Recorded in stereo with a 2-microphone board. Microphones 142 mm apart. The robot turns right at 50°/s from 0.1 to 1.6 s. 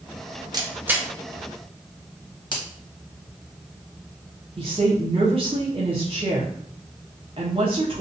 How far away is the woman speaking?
About 0.8 m.